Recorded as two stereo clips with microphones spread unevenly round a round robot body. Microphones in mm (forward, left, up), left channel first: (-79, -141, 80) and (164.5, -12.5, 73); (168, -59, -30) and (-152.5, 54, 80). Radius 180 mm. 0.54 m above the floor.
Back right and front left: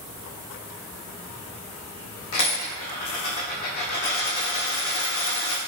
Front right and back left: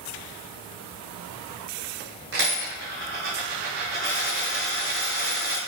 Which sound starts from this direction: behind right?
A dropped coin, at 2.3 s.